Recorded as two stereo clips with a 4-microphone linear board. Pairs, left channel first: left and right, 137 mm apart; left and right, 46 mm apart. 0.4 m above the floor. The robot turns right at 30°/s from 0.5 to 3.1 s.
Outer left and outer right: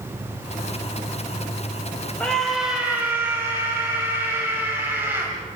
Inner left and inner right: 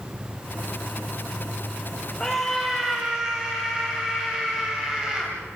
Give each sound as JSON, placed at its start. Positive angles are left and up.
{"t": 0.0, "sound": "an insect", "azimuth_deg": -125, "distance_m": 4.0}
{"t": 2.2, "sound": "a scream", "side_deg": 10, "distance_m": 2.5}